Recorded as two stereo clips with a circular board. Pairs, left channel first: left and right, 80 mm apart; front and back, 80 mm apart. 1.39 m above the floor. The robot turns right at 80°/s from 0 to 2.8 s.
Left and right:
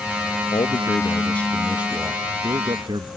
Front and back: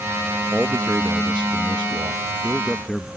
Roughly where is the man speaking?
Left.